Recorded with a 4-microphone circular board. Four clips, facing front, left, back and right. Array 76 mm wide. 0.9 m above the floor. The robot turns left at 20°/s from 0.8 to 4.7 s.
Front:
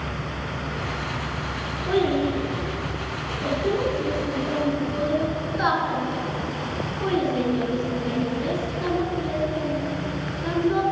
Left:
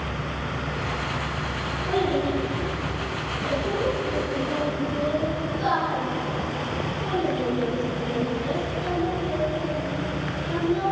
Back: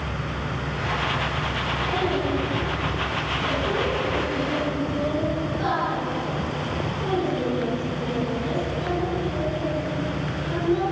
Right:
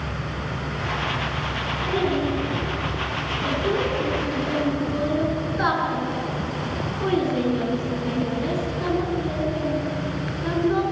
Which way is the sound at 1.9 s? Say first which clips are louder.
Even, front 5 dB; 5° left.